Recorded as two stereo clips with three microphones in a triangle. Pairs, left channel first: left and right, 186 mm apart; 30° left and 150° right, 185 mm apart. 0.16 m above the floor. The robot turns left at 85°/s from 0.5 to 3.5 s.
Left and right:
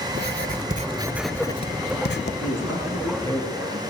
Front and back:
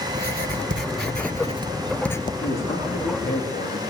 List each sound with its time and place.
0.1 s writing: 115° right, 0.6 m; by 2.3 s 90° left, 0.6 m
2.4 s a man speaking: 100° left, 9 m; by 3.8 s 5° left, 9 m